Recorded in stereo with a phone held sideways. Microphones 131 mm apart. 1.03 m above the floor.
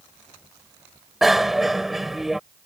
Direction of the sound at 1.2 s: Centre (ahead or behind).